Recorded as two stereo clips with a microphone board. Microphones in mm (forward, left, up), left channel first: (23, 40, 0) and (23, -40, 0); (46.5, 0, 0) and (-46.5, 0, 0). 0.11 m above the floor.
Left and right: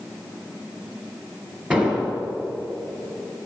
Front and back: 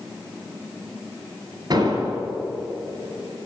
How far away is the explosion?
About 2.5 m.